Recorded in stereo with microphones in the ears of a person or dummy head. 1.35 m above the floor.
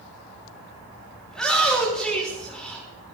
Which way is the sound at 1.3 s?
10° left (ahead or behind).